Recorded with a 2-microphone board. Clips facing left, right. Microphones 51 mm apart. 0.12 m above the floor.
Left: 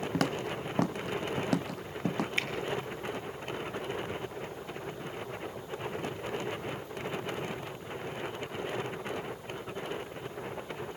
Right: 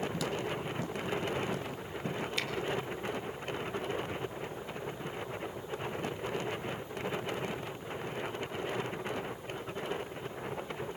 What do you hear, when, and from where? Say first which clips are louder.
0.1 s footsteps: left 3 dB; 55° left (ahead or behind), 1.1 m; by 2.3 s 85° left, 1.9 m
2.4 s a finger snap: left 3 dB; 35° left (ahead or behind), 2.5 m